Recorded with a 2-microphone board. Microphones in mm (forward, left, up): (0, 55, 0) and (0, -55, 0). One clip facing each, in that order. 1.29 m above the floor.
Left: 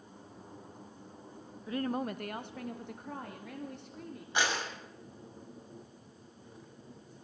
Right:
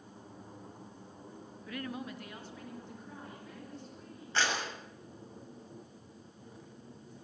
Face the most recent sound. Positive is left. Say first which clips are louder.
# left 1 dB
turn(degrees=15)  # may be behind; listen again after turning